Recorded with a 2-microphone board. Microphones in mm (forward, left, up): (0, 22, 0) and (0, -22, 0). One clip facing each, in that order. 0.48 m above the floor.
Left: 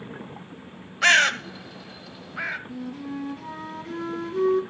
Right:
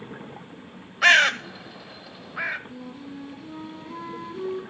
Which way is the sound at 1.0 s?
5° right (ahead or behind).